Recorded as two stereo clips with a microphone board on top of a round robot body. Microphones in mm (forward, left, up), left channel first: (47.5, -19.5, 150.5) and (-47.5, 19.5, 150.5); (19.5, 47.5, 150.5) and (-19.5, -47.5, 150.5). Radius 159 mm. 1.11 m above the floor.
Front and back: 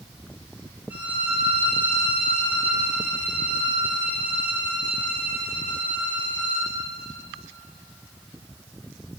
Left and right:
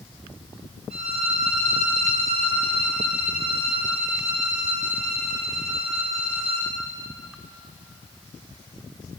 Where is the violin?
125° right, 2.5 m.